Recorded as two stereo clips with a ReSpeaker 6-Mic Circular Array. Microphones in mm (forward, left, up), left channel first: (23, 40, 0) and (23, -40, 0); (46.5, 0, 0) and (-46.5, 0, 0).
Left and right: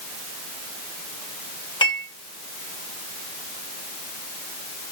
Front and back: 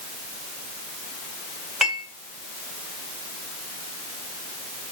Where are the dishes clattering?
95° left, 7 m.